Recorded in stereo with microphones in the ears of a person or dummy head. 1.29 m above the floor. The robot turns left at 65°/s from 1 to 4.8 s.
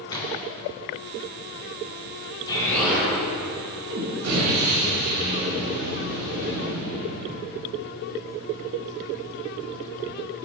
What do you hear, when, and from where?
0.1 s a splash: 25° left (ahead or behind), 3 m
2.5 s an explosion: 25° left, 5.5 m; by 7.4 s 125° right, 5.5 m